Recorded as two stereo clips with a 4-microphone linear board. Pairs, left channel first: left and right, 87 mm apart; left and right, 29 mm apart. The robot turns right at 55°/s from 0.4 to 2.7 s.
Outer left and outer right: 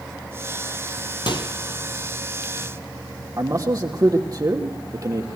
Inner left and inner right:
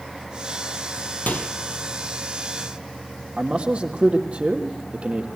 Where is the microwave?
65° left (ahead or behind), 2 m.